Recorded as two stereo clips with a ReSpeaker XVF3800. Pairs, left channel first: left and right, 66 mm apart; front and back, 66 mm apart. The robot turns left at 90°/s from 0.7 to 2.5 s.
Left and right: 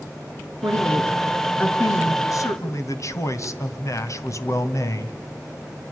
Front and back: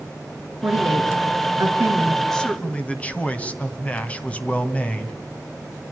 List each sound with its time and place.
0.6 s a woman speaking: 120° right, 4.5 m; by 2.2 s 105° left, 4.5 m
2.3 s a man speaking: 85° left, 2 m; by 5.2 s 65° left, 2 m